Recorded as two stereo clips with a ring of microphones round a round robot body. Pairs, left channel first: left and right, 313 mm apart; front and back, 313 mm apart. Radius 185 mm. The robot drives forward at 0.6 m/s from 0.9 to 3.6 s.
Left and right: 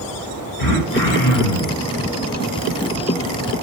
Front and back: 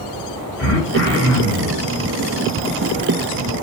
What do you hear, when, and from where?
0.6 s throat clearing: 45° left, 2.5 m; by 1.8 s 60° left, 2 m